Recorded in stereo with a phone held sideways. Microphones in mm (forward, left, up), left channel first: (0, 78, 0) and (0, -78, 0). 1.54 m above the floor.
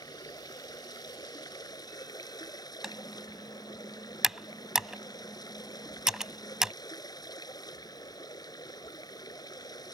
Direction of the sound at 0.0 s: 25° left (ahead or behind).